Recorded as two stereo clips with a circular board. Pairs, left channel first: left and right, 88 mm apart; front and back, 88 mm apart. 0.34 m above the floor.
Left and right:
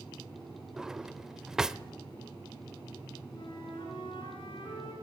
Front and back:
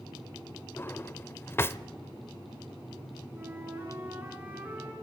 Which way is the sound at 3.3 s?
110° left.